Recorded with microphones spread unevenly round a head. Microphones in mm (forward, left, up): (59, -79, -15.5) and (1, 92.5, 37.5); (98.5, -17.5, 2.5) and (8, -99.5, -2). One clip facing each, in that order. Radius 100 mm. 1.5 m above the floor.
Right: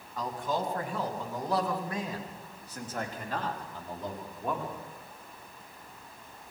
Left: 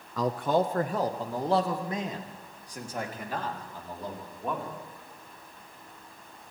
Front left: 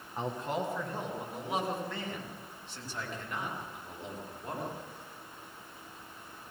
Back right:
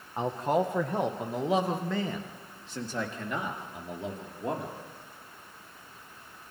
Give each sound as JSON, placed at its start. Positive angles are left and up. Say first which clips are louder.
{"t": 0.2, "sound": "a man speaking", "louder": "left 7 dB, back right 7 dB", "azimuth_deg": 145, "distance_m": 1.5}